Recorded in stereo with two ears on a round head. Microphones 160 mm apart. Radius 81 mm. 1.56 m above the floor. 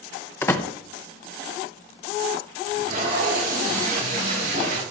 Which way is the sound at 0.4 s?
15° left (ahead or behind).